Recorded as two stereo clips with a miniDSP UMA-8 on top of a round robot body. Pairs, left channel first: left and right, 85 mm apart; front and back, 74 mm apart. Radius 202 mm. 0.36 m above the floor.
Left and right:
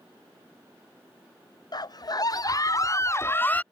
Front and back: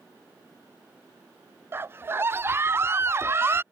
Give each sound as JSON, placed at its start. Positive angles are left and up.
{"t": 1.7, "sound": "a scream", "azimuth_deg": 120}